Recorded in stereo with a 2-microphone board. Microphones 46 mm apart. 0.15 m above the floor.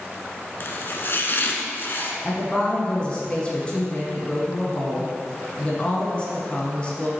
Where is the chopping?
50° left (ahead or behind), 0.7 m.